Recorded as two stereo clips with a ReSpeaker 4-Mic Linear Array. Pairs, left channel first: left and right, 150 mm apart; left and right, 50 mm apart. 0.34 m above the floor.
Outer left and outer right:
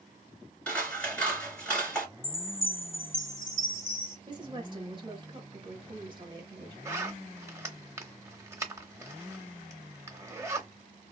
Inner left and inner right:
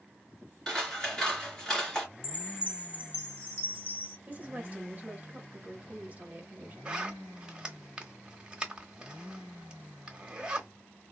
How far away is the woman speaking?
About 1.2 m.